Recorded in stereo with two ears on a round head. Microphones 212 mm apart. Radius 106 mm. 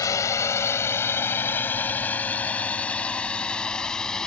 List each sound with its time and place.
0.0 s a drone: 15° left (ahead or behind); by 4.3 s 5° left (ahead or behind)